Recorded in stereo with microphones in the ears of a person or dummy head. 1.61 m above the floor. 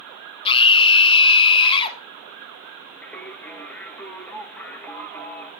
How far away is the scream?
About 1.4 m.